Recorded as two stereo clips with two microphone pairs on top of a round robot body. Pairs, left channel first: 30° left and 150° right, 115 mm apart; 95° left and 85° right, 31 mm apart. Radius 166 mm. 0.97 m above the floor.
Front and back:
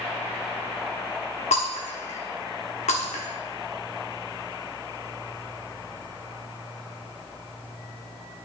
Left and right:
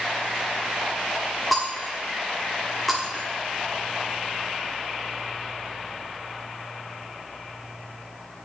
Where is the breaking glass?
5° left, 1.2 m.